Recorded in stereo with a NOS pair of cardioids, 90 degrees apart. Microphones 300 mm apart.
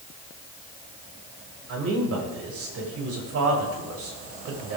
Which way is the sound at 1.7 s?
50° right.